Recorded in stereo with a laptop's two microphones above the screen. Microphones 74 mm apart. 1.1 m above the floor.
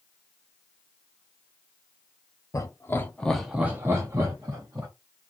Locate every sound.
2.5 s laughter: 45° left (ahead or behind), 0.8 m; by 4.9 s 60° right (ahead or behind), 1.3 m